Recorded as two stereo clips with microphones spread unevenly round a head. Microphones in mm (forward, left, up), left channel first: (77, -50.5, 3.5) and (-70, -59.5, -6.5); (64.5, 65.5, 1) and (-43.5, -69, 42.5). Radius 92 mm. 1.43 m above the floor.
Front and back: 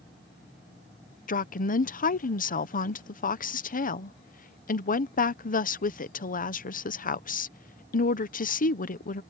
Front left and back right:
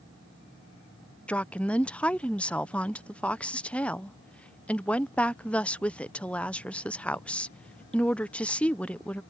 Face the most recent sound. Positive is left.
turn(degrees=-30)